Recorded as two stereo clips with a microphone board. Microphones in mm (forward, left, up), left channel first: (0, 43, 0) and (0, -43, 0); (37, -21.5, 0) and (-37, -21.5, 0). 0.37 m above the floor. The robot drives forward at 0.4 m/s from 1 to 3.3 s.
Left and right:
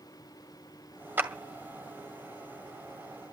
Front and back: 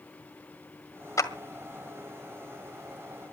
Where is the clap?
30° right, 1.7 m.